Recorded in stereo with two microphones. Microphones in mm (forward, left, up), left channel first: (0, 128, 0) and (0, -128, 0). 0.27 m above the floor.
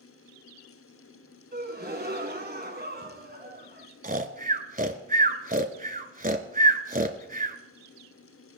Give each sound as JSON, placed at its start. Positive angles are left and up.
{"t": 1.5, "sound": "a gasp", "side_deg": -35, "distance_m": 1.5}
{"t": 4.0, "sound": "snoring", "side_deg": -30, "distance_m": 0.9}